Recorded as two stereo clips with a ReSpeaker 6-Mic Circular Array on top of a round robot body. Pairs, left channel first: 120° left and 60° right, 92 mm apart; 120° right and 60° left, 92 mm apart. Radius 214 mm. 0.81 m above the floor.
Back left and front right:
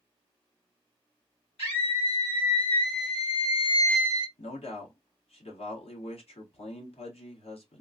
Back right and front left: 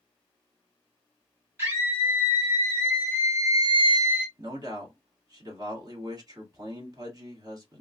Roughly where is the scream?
Behind left.